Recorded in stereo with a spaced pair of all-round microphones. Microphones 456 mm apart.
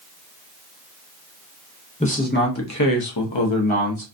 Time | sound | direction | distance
2.0 | a man speaking | 15° left (ahead or behind) | 1.0 m